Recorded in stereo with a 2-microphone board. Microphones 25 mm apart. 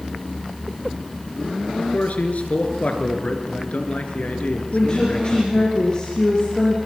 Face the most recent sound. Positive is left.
turn(degrees=30)  # may be behind; listen again after turning